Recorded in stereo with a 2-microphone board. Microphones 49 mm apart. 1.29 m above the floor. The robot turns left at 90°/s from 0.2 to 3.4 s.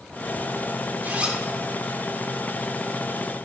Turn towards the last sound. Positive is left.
turn(degrees=10)